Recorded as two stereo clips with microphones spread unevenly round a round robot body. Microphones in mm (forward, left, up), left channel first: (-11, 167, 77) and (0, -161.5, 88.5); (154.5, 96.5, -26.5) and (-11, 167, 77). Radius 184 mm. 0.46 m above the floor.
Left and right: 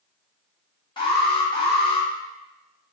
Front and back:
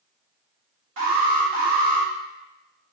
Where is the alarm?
155° left, 1.3 m.